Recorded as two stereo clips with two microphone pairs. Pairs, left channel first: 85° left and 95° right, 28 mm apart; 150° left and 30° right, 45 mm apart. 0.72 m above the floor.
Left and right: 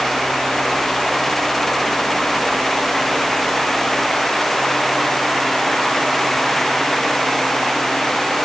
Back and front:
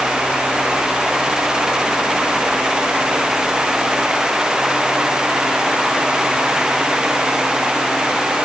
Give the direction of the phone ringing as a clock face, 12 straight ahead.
I don't hear a phone ringing.